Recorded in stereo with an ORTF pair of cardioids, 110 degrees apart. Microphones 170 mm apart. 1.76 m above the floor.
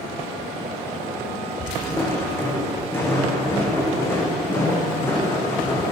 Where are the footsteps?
15° left, 6 m.